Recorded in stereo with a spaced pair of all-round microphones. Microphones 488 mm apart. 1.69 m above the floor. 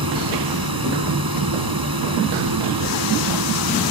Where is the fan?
45° right (ahead or behind).